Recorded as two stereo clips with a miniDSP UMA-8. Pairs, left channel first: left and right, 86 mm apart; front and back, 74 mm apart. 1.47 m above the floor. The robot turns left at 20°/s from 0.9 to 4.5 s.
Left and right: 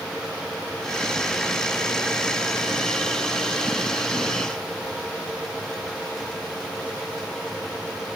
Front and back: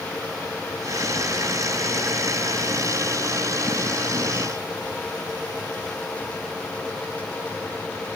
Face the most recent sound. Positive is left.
No sound to turn to.